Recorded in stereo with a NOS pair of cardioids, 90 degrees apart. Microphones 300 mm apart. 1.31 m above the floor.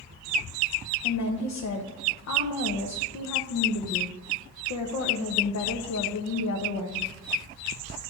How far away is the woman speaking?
About 1.1 m.